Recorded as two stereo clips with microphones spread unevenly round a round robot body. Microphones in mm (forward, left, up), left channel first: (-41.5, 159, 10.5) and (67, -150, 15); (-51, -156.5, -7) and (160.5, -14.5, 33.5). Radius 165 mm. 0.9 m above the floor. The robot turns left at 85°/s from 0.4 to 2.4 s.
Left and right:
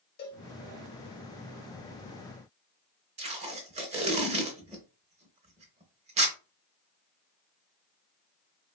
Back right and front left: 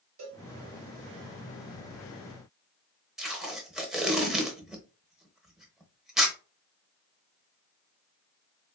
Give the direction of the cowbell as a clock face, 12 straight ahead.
10 o'clock.